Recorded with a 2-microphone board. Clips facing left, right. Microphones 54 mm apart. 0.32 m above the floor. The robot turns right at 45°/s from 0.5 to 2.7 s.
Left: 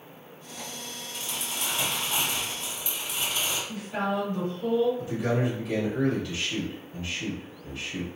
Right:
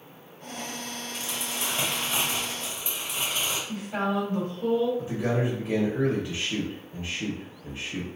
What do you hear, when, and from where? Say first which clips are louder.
1.1 s crumpling: even; 150° right, 1.7 m; by 3.6 s 80° right, 1.7 m
3.7 s a woman speaking: right 2 dB; 30° right (ahead or behind), 1.7 m
5.0 s a man speaking: even; 25° right (ahead or behind), 1.0 m